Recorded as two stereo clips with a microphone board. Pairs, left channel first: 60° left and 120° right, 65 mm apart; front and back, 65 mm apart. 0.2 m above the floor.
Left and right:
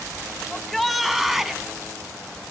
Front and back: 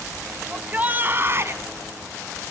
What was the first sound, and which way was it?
A shout, 140° left.